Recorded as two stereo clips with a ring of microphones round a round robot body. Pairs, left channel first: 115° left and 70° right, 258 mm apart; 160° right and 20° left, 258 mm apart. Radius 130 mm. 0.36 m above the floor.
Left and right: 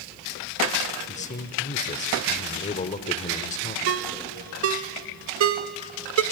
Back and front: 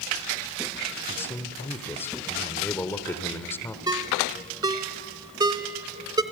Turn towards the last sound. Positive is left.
turn(degrees=-50)